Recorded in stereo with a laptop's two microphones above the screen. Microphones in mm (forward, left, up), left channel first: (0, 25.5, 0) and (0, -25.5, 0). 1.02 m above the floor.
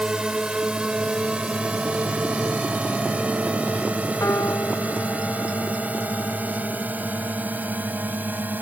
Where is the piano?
85° left.